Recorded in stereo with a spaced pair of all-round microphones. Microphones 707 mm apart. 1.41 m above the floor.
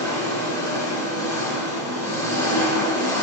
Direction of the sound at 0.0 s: 75° left (ahead or behind).